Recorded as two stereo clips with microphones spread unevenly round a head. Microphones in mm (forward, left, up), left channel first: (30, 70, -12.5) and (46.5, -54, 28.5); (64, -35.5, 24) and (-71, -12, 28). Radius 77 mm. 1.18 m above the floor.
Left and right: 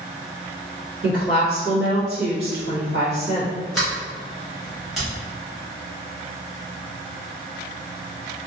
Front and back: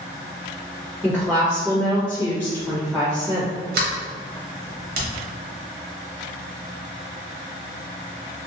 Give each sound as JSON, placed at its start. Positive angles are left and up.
{"t": 1.0, "sound": "a woman speaking", "azimuth_deg": -90, "distance_m": 0.9}
{"t": 3.7, "sound": "a sliding door", "azimuth_deg": -175, "distance_m": 0.8}